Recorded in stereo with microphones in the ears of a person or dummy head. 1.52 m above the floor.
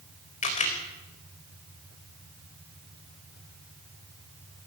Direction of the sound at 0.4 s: 35° left (ahead or behind).